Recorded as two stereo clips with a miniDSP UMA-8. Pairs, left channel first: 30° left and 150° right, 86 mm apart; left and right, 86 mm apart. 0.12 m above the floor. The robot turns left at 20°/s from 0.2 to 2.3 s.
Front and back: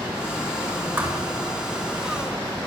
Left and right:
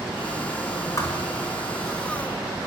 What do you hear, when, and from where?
1.0 s a thud: 145° left, 4.5 m; by 1.2 s 135° left, 4.5 m